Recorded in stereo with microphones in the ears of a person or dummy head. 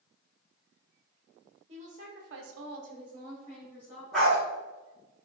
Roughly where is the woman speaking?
Right.